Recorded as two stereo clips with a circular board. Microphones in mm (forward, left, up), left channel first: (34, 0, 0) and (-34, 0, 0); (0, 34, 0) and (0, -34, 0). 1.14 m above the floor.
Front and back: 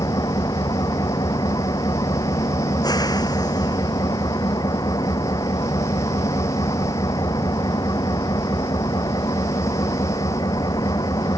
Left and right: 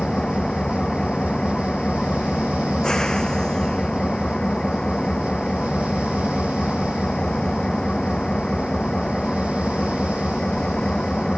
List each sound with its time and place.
0.0 s an engine running: 10° left